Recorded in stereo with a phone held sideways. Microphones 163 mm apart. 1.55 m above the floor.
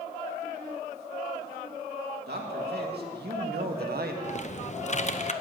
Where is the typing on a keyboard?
45° left (ahead or behind), 0.6 m.